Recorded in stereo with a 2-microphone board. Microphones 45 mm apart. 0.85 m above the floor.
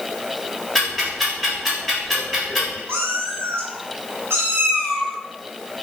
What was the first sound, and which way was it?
Ticking, 5° left (ahead or behind).